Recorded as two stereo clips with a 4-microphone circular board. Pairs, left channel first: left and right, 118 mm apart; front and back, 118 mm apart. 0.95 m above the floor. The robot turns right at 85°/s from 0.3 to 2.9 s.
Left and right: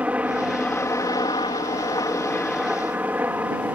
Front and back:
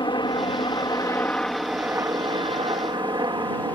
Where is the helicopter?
15° right; by 3.8 s 155° right.